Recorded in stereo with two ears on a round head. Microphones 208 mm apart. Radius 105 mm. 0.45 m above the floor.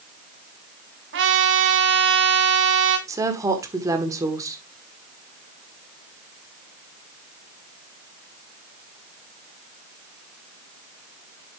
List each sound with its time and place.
1.1 s a trumpet: 50° right (ahead or behind), 2.0 m
3.1 s a woman speaking: 15° right (ahead or behind), 1.5 m